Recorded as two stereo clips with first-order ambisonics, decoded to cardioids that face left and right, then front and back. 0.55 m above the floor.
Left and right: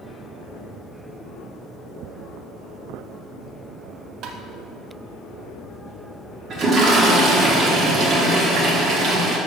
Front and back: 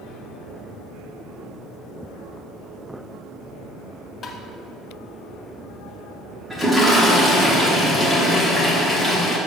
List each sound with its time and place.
4.2 s tapping: 60° right, 0.6 m
6.5 s a toilet flushing: 95° right, 1.1 m